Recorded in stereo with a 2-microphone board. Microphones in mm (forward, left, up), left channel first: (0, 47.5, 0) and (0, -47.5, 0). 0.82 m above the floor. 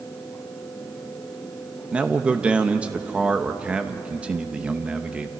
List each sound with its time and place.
1.9 s a man speaking: 10° right (ahead or behind), 1.0 m